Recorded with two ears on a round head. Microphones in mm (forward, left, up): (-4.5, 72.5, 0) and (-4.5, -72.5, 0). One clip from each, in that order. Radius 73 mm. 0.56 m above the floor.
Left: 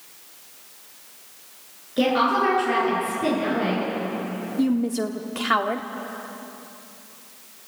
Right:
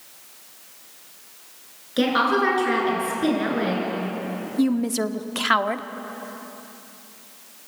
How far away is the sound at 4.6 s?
About 0.8 m.